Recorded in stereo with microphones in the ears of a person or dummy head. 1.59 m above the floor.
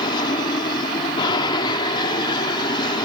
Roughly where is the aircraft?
Left.